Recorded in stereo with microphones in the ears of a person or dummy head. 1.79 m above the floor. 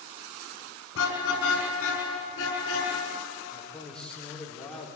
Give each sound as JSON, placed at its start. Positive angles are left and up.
{"t": 0.9, "sound": "a car horn", "side_deg": 75, "distance_m": 6.5}
{"t": 3.5, "sound": "a man speaking", "side_deg": 5, "distance_m": 5.0}